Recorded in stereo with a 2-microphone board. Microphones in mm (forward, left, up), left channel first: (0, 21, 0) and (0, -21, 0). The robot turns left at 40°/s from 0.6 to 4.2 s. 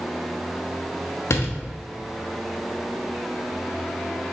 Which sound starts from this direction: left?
A door slam, at 1.3 s.